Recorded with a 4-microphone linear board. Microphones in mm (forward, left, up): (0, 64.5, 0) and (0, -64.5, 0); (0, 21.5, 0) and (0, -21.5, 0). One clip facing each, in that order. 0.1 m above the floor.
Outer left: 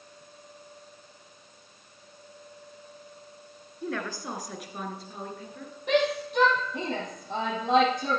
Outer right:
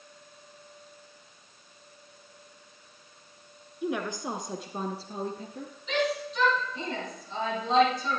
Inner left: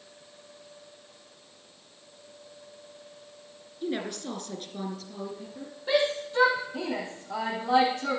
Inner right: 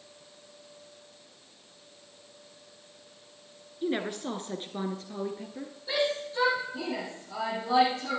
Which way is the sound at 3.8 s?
15° right (ahead or behind).